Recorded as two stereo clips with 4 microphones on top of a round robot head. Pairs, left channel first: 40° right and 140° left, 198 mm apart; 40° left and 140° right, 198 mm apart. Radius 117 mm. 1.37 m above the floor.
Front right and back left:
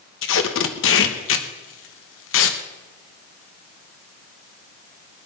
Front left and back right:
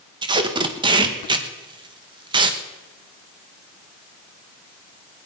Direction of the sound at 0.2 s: 70° right.